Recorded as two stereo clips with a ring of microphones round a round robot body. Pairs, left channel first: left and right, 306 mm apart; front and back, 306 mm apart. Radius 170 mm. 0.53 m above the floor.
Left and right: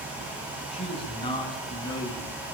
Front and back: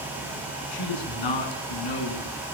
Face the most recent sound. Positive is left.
turn(degrees=5)